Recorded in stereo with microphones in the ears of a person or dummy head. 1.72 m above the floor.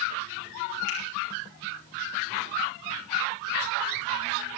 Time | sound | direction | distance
0.9 | a finger snap | 70° left (ahead or behind) | 5 m